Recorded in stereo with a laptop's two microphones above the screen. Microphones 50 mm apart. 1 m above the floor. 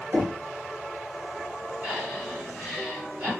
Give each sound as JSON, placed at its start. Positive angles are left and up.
{"t": 0.1, "sound": "knocking", "side_deg": -60, "distance_m": 0.9}
{"t": 1.8, "sound": "breathing", "side_deg": -25, "distance_m": 1.3}